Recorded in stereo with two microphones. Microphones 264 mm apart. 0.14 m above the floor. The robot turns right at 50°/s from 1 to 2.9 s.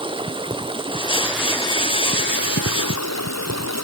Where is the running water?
20° right, 0.9 m; by 3.9 s 75° left, 0.9 m.